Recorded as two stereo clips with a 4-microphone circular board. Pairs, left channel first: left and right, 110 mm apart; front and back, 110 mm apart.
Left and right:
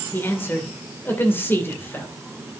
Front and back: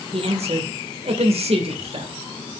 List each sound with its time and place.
0.1 s a man speaking: 160° left, 2.0 m